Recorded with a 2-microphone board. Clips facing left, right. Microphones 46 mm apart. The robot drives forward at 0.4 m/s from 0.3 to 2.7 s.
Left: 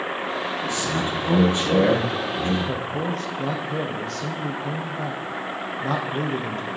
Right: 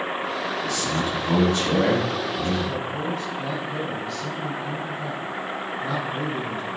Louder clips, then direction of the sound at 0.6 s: Even; 20° left (ahead or behind).